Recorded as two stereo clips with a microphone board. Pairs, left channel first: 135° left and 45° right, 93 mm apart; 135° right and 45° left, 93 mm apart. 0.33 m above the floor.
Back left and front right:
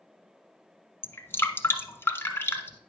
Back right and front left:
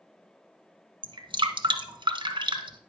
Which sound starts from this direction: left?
Dripping, at 1.0 s.